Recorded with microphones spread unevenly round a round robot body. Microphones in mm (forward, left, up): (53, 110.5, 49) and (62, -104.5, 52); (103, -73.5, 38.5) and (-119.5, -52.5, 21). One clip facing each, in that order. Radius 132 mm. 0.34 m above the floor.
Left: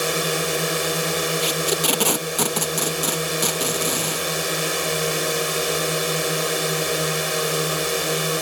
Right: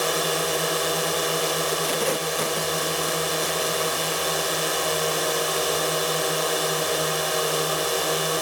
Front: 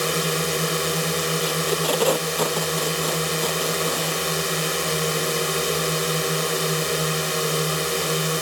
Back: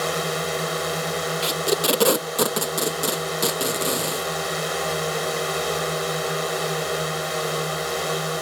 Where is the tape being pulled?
105° left.